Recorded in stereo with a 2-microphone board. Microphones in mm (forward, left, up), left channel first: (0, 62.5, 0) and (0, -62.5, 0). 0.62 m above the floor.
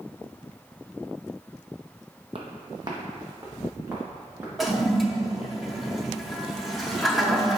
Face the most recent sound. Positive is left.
turn(degrees=0)  # may be behind; listen again after turning